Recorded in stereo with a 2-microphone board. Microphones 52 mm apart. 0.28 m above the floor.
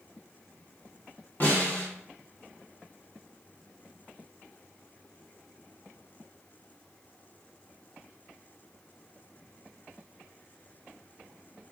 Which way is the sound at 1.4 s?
40° left (ahead or behind).